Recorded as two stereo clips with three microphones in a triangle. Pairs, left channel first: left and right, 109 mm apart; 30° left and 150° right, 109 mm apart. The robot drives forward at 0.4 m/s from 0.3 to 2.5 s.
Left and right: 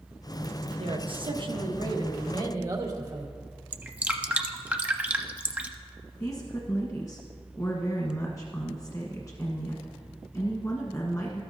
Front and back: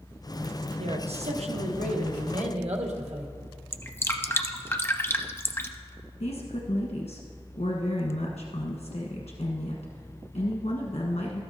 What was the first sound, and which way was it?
A man speaking, 125° right.